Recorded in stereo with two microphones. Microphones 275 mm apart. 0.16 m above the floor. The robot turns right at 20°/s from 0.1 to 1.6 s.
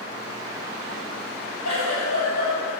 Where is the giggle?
75° left (ahead or behind), 3.5 m.